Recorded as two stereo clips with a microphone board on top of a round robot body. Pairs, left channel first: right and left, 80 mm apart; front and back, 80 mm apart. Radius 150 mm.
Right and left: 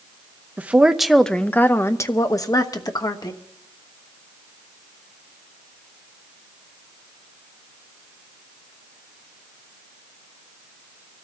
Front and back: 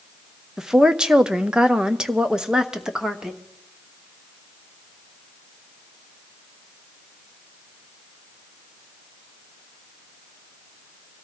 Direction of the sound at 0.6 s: 110° left.